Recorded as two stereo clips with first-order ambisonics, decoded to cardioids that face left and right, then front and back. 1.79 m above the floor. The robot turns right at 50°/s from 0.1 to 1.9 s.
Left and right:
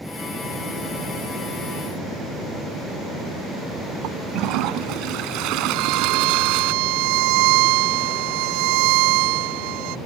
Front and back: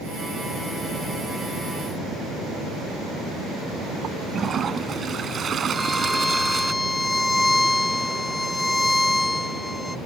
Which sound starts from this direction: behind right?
A toilet flushing, at 4.0 s.